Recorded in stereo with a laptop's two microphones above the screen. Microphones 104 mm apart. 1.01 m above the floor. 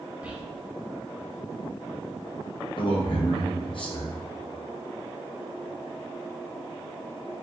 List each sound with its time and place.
0.2 s whispering: 15° right (ahead or behind), 0.7 m
2.8 s a man speaking: 50° left (ahead or behind), 0.9 m